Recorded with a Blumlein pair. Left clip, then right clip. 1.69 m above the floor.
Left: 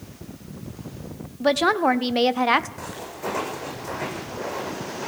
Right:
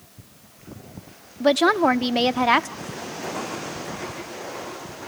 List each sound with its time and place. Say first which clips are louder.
1.4 s a woman speaking: right 2 dB; 5° right, 0.5 m
2.8 s footsteps: even; 40° left, 6.5 m